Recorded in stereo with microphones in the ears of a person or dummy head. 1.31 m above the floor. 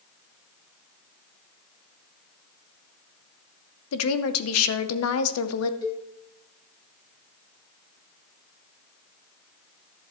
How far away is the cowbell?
About 1.9 m.